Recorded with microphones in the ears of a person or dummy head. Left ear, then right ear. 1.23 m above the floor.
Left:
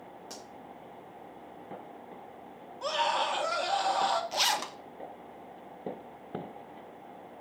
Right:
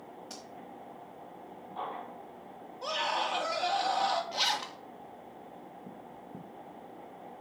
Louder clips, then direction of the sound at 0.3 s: Left 2 dB; 15° left (ahead or behind).